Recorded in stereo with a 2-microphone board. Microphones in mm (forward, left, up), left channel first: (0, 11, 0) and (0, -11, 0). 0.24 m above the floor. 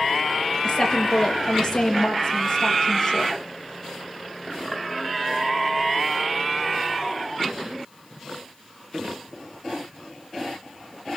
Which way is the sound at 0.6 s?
20° left (ahead or behind).